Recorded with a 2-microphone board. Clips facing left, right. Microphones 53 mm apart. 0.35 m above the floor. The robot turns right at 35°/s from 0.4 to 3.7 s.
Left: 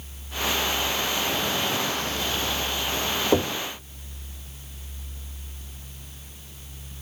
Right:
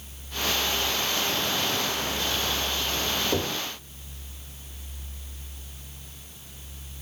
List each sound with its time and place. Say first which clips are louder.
3.3 s knocking: left 9 dB; 35° left (ahead or behind), 0.8 m; by 3.5 s 30° left (ahead or behind), 0.8 m